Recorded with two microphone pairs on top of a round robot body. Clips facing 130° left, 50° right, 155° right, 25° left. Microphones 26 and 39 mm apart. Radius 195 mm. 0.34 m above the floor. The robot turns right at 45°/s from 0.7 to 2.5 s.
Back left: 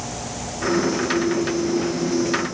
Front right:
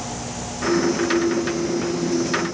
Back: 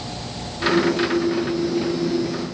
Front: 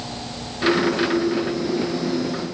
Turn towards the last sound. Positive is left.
No sound to turn to.